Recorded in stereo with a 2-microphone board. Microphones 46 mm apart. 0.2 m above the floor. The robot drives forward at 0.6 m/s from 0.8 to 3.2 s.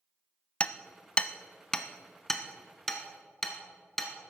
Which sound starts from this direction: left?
Hammering, at 0.6 s.